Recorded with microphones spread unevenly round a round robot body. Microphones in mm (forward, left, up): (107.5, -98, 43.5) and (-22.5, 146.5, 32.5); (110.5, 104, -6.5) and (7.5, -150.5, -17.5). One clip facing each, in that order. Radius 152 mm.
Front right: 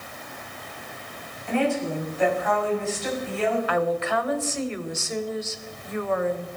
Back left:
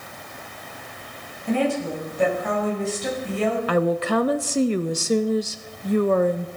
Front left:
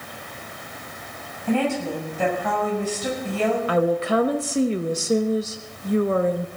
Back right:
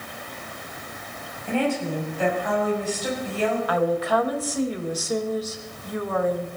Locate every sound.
1.5 s a woman speaking: 65° left, 6.5 m
3.7 s a woman speaking: 120° left, 0.8 m